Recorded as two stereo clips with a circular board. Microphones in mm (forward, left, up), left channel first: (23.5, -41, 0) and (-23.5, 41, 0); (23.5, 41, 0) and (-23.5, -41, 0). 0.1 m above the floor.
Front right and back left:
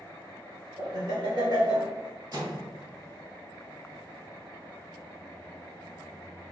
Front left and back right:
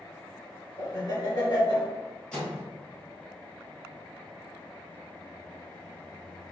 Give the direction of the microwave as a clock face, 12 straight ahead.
7 o'clock.